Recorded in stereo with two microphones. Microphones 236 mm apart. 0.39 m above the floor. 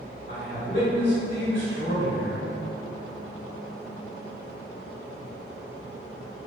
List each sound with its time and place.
0.3 s a man speaking: 35° left (ahead or behind), 1.8 m